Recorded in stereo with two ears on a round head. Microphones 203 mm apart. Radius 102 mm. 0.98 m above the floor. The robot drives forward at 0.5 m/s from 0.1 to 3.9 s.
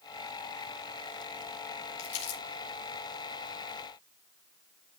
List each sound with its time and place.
2.0 s crumpling: 55° left (ahead or behind), 4.5 m